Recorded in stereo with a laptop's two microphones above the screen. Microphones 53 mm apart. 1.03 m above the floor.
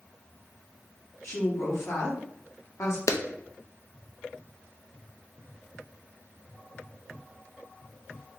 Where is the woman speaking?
60° left (ahead or behind), 1.8 m.